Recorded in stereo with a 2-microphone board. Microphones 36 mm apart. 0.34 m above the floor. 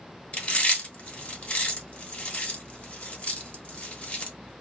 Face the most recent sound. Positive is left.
turn(degrees=35)  # may be behind; listen again after turning